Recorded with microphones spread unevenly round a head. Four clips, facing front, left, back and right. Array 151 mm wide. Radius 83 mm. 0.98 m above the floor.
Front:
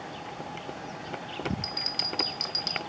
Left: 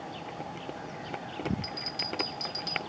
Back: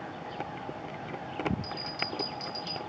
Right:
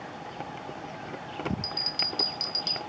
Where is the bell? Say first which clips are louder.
Right 1 dB, back 1 dB; 20° right, 2.5 m.